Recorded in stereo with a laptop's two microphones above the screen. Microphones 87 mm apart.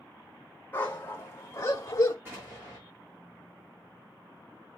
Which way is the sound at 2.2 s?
25° right (ahead or behind).